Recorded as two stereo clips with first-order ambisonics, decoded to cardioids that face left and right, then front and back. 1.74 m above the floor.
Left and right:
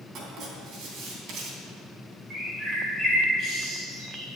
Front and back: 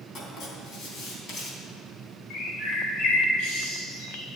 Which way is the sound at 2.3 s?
30° right.